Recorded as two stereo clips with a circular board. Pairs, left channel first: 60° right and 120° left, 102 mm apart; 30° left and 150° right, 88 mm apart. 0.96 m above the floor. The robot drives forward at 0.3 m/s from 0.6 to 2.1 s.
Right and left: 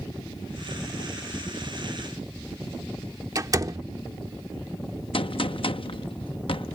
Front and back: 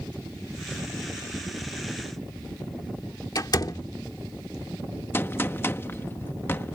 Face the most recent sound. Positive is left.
turn(degrees=-35)